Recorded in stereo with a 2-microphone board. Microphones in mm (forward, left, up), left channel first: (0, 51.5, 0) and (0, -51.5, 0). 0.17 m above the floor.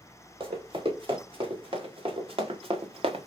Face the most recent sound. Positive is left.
turn(degrees=-80)